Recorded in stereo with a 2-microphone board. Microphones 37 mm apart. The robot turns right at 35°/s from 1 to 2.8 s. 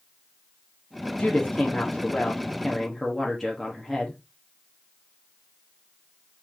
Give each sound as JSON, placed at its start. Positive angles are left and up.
{"t": 1.2, "sound": "a woman speaking", "azimuth_deg": 120, "distance_m": 1.1}